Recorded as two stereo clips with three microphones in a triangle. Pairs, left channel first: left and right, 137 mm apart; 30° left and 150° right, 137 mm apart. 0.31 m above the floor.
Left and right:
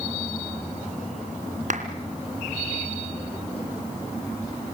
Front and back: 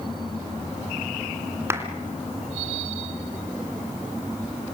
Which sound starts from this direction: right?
A clap, at 1.7 s.